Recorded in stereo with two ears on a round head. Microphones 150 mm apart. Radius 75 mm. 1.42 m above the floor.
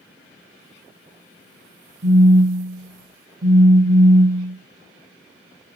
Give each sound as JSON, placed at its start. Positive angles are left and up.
{"t": 2.0, "sound": "a phone buzzing", "side_deg": -25, "distance_m": 0.9}